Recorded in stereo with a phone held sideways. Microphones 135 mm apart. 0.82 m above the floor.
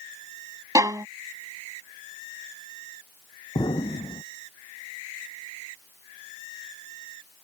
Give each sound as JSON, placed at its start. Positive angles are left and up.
{"t": 0.8, "sound": "a violin", "side_deg": -25}
{"t": 3.5, "sound": "an explosion", "side_deg": 35}